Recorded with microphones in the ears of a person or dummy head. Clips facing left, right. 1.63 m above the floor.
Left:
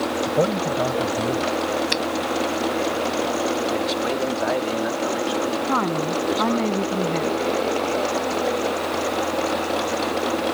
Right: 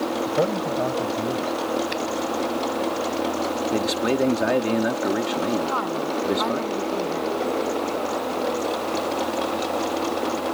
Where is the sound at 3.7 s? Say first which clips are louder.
Right 1 dB; 25° right (ahead or behind).